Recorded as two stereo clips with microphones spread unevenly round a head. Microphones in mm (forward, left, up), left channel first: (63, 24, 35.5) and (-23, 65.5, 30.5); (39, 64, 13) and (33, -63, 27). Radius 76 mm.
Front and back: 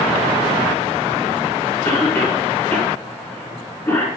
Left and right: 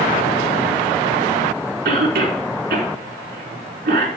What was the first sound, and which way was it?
A cough, 105° right.